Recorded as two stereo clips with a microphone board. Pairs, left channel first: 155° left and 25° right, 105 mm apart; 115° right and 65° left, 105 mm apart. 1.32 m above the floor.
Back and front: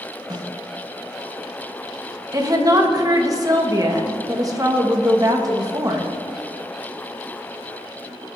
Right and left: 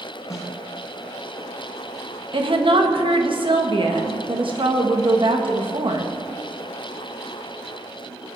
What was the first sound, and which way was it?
A snare drum, 60° right.